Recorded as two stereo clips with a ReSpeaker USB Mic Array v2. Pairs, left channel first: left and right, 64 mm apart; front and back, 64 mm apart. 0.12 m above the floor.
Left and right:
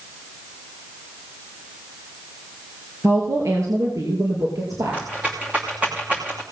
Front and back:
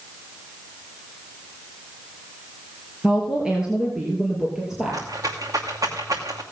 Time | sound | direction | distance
3.0 | a woman speaking | 110° right | 2 m
4.9 | a rattle | 160° right | 2 m